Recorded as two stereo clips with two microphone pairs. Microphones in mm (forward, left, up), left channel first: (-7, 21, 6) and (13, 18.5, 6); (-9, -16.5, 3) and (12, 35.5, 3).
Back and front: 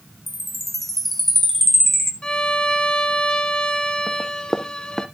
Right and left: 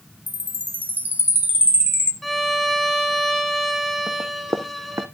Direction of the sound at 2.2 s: 160° left.